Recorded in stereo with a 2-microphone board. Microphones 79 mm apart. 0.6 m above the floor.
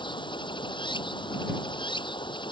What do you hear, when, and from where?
0.0 s running water: 90° left